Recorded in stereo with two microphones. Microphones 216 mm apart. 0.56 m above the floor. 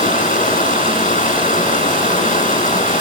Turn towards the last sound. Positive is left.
turn(degrees=35)  # may be behind; listen again after turning